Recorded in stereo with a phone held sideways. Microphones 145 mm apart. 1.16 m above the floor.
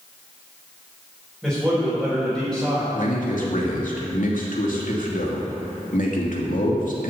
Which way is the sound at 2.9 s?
75° left (ahead or behind).